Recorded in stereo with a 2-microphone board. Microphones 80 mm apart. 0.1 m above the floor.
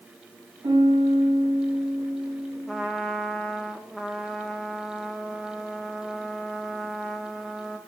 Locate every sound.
0.6 s a piano: 70° right (ahead or behind), 8.5 m
2.7 s a trumpet: centre (ahead or behind), 1.3 m